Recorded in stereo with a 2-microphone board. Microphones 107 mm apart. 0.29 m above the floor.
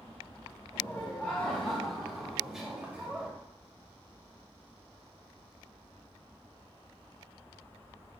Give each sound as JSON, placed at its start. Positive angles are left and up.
{"t": 0.7, "sound": "laughter", "side_deg": 20, "distance_m": 1.7}